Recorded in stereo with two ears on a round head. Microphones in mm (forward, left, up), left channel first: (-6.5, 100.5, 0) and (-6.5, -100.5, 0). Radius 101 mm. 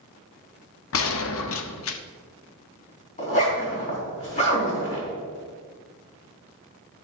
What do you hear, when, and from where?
0.9 s a gunshot: 65° left (ahead or behind), 0.7 m
3.2 s a zipper: 35° left (ahead or behind), 3.5 m